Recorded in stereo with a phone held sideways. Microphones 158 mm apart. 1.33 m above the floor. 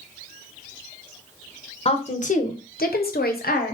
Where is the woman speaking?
40° left (ahead or behind), 0.8 m; by 3.7 s 70° left (ahead or behind), 0.9 m.